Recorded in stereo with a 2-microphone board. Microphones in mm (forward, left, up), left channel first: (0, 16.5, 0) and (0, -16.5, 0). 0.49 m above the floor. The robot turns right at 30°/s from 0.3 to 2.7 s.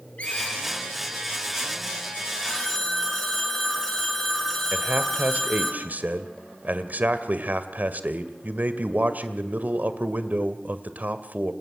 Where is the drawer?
I don't hear a drawer.